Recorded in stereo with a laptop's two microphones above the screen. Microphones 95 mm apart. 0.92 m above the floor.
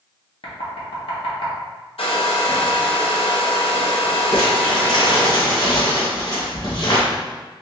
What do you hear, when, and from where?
0.4 s knocking: 70° left (ahead or behind), 1.4 m
2.0 s a hair dryer: 75° left (ahead or behind), 0.6 m
4.3 s crumpling: 50° left (ahead or behind), 2.0 m